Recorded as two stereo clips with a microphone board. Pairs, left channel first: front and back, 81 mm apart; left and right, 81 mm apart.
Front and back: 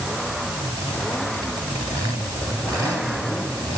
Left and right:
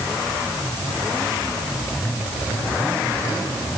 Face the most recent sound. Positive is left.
No sound to turn to.